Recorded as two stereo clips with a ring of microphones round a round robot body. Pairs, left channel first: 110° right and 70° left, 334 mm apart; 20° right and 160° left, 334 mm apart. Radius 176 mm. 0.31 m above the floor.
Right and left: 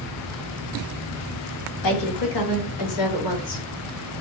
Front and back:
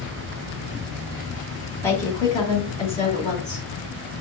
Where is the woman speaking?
105° right, 2.5 m; by 3.7 s 90° right, 3 m.